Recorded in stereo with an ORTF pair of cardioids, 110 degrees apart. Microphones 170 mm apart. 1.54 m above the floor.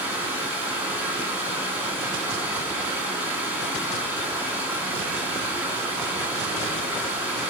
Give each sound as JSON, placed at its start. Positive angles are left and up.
{"t": 0.0, "sound": "running water", "azimuth_deg": -10, "distance_m": 2.5}